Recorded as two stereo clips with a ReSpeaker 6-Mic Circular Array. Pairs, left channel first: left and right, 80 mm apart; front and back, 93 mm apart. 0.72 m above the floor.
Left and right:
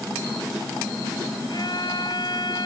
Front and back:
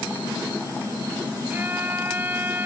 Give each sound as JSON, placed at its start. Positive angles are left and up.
{"t": 1.5, "sound": "a violin", "azimuth_deg": 115}